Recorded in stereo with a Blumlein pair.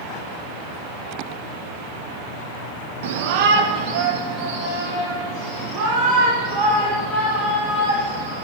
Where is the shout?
55° right, 1.2 m; by 8.4 s 25° right, 9.5 m.